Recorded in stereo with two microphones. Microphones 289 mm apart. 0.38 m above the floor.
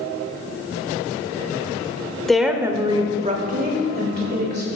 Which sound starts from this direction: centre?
A woman speaking, at 2.3 s.